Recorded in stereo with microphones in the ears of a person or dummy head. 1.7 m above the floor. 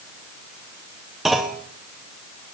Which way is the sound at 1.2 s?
Centre (ahead or behind).